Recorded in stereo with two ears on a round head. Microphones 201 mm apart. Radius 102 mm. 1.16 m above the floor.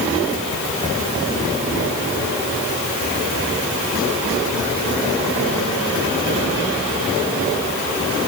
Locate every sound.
Only background noise.